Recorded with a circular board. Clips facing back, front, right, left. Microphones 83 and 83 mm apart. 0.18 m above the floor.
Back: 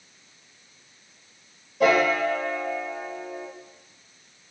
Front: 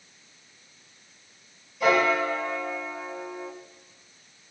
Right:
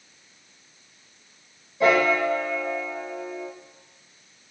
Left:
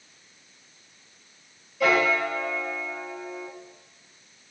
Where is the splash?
I don't hear a splash.